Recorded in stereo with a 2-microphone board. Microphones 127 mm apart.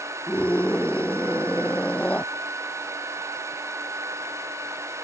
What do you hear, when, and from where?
0.3 s a scream: 10° left (ahead or behind)